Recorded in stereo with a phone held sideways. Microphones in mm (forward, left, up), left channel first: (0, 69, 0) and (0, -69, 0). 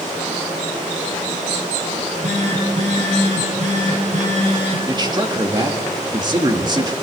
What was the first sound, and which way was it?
A phone buzzing, 55° right (ahead or behind).